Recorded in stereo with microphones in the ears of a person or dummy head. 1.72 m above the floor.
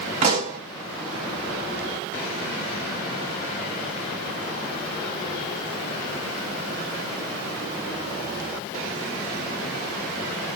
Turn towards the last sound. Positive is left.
turn(degrees=-45)  # may be behind; listen again after turning